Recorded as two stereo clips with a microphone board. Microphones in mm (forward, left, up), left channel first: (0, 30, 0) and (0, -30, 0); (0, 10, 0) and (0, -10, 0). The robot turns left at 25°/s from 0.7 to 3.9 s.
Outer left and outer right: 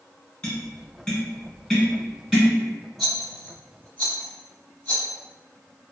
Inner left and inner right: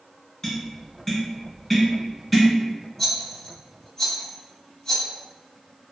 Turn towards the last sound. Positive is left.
turn(degrees=20)  # may be behind; listen again after turning